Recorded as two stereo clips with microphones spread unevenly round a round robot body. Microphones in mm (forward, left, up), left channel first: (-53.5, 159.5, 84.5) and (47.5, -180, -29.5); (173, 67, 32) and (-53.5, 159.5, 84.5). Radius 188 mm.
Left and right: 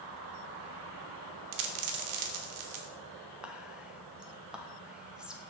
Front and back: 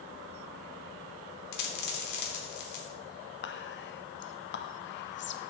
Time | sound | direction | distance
1.5 | a dropped coin | 60° right | 0.9 m
3.4 | whispering | 5° left | 0.8 m